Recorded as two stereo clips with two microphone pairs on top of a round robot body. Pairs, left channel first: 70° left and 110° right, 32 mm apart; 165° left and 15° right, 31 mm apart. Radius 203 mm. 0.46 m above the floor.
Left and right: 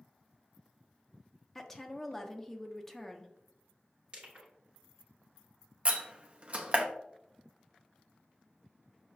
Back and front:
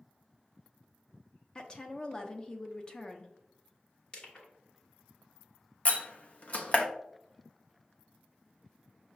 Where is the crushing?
155° right, 1.5 m.